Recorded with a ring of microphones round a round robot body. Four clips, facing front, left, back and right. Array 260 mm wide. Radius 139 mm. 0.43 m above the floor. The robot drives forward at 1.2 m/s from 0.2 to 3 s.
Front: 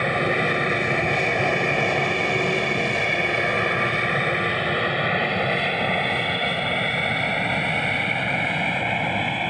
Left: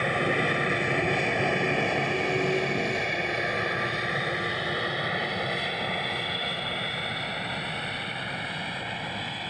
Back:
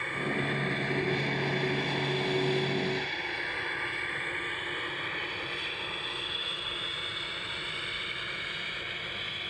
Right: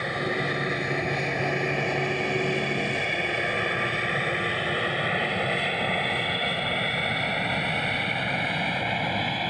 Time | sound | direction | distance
0.0 | an aircraft | 10° left | ?